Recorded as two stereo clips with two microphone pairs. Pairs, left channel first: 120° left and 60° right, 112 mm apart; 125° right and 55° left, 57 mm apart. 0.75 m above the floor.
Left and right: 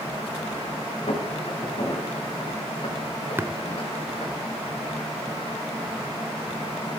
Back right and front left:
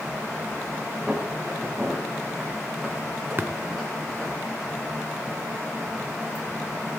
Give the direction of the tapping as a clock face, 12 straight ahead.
12 o'clock.